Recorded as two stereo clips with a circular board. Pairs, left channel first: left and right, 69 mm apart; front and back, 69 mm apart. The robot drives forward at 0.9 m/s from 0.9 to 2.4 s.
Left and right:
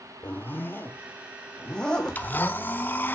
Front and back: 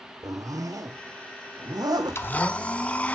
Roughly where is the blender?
Ahead left.